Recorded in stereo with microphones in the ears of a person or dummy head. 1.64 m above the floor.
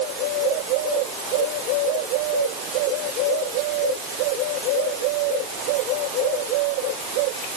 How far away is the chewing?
I don't hear chewing.